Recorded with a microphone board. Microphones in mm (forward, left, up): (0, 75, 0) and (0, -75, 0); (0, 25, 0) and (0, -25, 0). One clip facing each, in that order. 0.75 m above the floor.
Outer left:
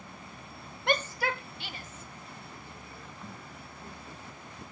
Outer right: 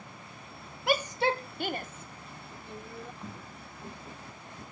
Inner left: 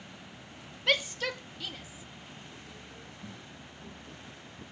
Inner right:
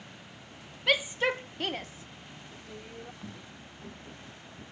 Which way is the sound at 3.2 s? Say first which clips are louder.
Outer right 1 dB, inner right 1 dB; 15° right (ahead or behind).